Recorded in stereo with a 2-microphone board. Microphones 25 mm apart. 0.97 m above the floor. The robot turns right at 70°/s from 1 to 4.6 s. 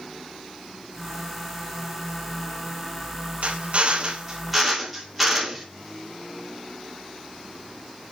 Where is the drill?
80° right, 2.5 m; by 5.7 s straight ahead, 2.5 m.